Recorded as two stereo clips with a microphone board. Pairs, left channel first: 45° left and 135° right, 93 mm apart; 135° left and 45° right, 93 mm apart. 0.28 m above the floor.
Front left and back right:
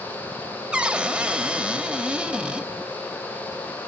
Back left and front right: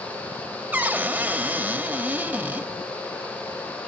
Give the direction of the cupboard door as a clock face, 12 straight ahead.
3 o'clock.